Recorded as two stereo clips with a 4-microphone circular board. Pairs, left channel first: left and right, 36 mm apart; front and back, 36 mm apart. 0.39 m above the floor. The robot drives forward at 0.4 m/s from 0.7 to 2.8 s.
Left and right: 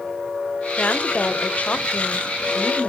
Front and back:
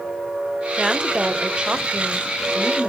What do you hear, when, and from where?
0.8 s a woman speaking: 110° left, 1.3 m; by 2.9 s 140° left, 1.7 m